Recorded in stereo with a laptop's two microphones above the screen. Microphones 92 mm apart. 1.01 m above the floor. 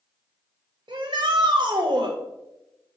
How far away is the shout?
About 0.6 m.